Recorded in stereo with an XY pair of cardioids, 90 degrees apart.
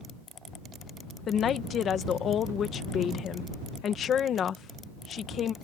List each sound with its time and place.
1.3 s a woman speaking: 65° left